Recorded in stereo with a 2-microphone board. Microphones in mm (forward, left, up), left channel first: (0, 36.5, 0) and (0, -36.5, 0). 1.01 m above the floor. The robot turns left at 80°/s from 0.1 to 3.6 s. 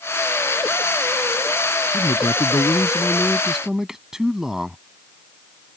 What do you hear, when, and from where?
1.9 s a man speaking: 125° left; by 4.8 s 10° right